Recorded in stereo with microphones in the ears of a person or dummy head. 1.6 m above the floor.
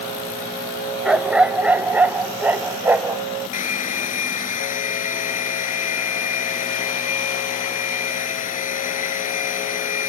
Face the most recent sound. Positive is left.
turn(degrees=45)  # may be behind; listen again after turning